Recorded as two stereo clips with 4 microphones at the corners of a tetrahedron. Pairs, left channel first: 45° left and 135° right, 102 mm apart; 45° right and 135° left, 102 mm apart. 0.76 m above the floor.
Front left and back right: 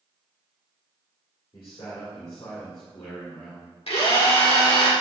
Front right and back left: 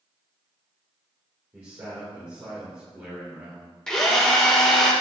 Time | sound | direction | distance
1.5 | a man speaking | 75° left | 2 m
3.9 | a drill | 40° left | 1.9 m